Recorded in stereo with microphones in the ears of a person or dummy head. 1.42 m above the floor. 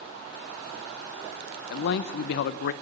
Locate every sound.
1.7 s a man speaking: 60° left (ahead or behind), 0.7 m